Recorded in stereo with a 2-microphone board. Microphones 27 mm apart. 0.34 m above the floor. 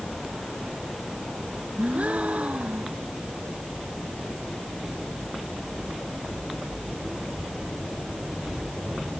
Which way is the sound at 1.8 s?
65° right (ahead or behind).